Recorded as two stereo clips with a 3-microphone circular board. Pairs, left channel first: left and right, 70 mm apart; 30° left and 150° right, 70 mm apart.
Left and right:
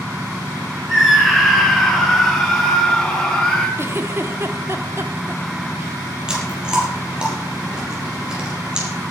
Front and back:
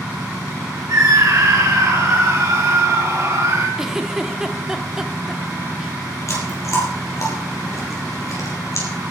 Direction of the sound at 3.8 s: 70° right.